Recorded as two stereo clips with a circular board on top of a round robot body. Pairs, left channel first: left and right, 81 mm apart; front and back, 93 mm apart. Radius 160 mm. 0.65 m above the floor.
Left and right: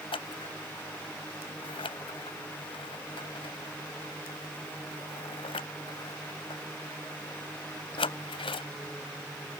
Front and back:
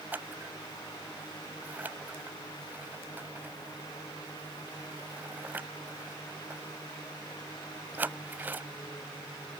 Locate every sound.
0.1 s scissors: 105° left